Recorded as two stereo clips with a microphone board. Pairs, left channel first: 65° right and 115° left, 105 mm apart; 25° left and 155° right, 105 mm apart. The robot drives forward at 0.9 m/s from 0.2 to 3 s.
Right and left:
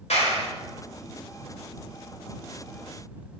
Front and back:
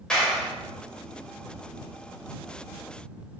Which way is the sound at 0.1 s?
60° right.